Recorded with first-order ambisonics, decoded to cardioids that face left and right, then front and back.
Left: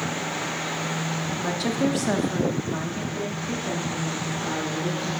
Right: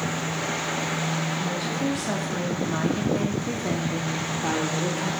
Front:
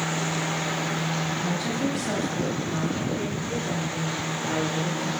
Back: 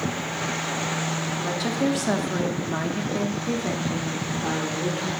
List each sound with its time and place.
1.4 s a woman speaking: 110° left, 0.8 m; by 5.1 s 120° right, 1.6 m